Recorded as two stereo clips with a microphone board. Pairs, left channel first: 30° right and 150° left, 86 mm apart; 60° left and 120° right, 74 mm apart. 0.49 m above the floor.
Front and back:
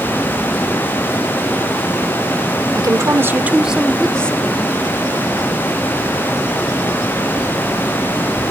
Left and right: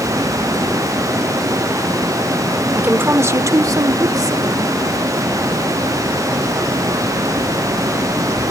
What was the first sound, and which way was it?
A woman speaking, straight behind.